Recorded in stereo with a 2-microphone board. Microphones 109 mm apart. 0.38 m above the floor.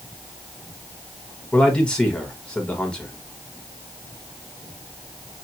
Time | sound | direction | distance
1.5 | a man speaking | 10° left (ahead or behind) | 1.2 m